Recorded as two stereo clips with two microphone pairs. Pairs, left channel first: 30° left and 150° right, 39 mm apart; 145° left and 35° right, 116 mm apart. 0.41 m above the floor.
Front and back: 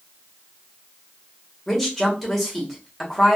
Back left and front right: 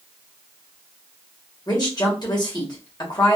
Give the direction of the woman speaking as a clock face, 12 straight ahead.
8 o'clock.